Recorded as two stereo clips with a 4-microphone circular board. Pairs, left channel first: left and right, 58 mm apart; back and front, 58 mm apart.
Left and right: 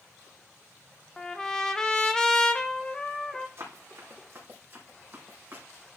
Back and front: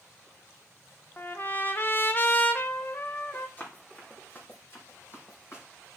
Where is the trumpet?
160° left, 0.8 m.